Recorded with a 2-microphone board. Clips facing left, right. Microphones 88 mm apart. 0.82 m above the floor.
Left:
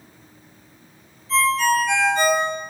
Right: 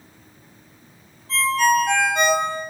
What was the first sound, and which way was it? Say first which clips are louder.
A ringtone: even; 65° right (ahead or behind).